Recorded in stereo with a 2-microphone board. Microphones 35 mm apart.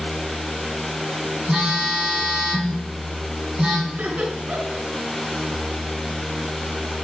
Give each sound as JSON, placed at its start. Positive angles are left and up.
{"t": 1.5, "sound": "a phone buzzing", "side_deg": -30, "distance_m": 4.5}
{"t": 3.9, "sound": "laughter", "side_deg": -50, "distance_m": 2.5}